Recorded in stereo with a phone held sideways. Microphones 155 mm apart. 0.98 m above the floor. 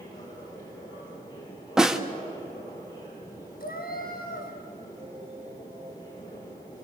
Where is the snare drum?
5° right (ahead or behind), 1.4 m.